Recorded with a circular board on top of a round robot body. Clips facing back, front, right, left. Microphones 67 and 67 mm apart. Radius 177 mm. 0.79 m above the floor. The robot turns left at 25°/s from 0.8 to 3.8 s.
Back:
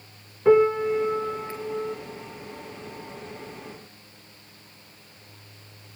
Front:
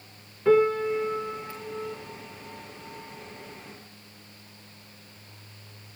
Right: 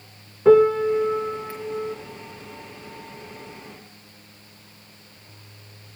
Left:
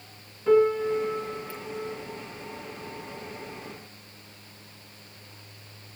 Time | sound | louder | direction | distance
0.5 | a piano | back 3 dB, right 6 dB | 110° right | 1.0 m